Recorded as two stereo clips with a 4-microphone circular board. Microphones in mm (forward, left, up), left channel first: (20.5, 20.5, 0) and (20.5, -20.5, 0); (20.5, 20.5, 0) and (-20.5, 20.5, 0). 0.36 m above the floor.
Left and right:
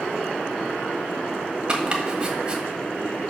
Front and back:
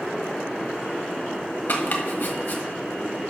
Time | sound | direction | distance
1.7 | chopping | 30° right | 1.4 m